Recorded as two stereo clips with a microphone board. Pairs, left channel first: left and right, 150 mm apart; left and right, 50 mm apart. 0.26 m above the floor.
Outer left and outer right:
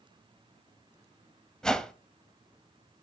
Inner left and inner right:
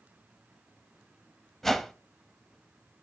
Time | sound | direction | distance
1.6 | a whoosh | 5° left (ahead or behind) | 0.6 m